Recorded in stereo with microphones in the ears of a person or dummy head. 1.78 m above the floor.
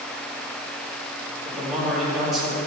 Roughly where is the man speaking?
Centre.